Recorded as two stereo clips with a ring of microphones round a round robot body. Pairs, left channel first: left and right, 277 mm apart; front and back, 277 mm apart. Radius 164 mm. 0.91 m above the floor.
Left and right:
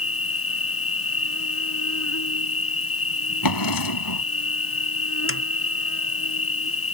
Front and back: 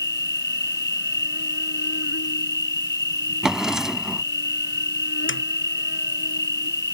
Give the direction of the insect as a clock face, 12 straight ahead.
10 o'clock.